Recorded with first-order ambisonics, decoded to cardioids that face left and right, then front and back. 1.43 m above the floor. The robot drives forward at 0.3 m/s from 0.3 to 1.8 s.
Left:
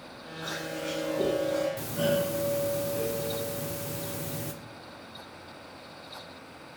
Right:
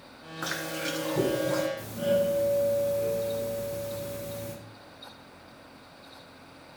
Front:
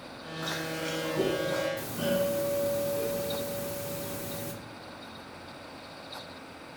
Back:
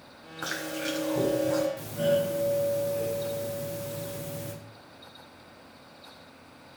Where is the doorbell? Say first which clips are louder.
Right 1 dB, back 3 dB; 85° left, 1.1 m.